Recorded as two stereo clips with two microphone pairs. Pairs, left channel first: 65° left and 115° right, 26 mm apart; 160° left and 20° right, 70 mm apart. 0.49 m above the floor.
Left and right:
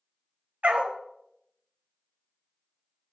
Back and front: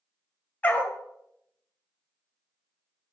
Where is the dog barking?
135° right, 0.8 m.